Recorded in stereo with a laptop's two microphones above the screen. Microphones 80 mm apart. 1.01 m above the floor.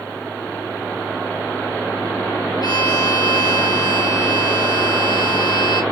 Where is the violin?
65° left (ahead or behind), 1.5 m.